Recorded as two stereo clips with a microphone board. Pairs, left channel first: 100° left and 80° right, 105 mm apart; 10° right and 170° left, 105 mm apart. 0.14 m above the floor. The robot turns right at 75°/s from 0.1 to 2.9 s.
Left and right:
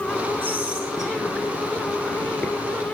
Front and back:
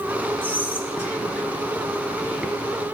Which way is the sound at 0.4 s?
55° right.